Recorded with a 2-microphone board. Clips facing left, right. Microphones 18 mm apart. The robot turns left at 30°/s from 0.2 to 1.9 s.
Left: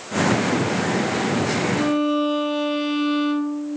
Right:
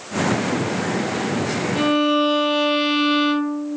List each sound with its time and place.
1.8 s a violin: 35° right (ahead or behind), 0.6 m